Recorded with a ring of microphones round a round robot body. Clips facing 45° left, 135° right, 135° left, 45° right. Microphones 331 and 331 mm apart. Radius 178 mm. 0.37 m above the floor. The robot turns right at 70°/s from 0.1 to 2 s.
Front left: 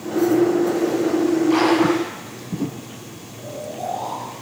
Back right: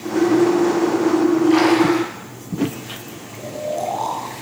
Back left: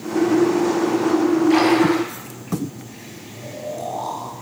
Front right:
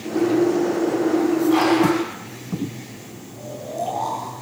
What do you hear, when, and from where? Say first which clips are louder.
1.5 s a splash: back right 2 dB, back left 2 dB; 140° left, 6 m; by 2.1 s 175° left, 6 m
3.3 s snoring: back right 6 dB, even; 135° right, 4 m